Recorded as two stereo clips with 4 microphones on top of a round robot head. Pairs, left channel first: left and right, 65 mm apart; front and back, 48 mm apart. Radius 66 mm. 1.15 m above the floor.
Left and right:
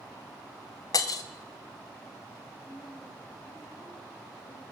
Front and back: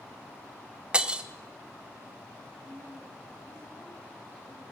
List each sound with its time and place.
0.9 s breaking glass: 115° left, 1.5 m
2.6 s a woman speaking: 40° left, 8 m